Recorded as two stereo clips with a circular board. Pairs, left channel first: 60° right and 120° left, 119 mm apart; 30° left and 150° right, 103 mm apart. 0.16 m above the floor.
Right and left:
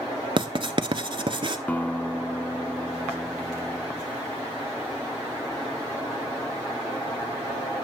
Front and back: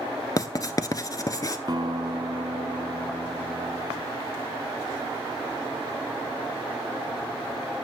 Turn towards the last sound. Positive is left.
turn(degrees=-130)